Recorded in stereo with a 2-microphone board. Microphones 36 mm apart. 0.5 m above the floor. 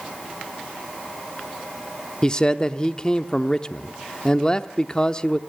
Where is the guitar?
No guitar in this recording.